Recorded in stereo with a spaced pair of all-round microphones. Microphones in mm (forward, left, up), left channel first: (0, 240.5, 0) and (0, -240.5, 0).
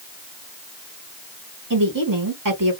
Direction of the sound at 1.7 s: 40° right (ahead or behind).